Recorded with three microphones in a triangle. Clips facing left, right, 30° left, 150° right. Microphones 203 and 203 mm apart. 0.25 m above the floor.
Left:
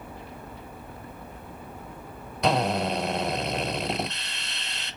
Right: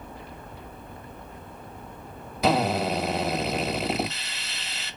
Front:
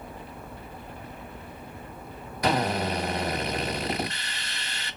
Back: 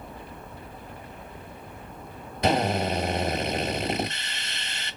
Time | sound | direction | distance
2.4 | a drill | 170° right | 1.1 m